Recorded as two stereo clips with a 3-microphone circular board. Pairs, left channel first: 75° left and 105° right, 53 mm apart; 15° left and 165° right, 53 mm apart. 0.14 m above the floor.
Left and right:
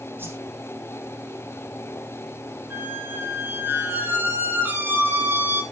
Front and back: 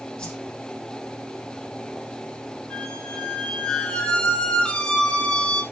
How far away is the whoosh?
About 6.5 m.